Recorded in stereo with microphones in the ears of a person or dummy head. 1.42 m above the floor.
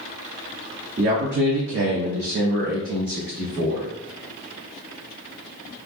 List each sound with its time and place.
1.0 s a man speaking: 45° right (ahead or behind), 0.6 m; by 3.9 s 35° right (ahead or behind), 1.2 m